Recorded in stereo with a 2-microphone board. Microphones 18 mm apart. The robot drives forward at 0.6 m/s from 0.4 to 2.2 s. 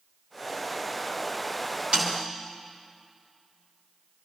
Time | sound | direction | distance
1.9 | a snare drum | 70° right (ahead or behind) | 4.5 m